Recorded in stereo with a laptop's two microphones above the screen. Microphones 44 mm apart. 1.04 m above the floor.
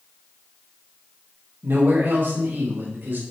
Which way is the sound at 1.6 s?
50° right (ahead or behind).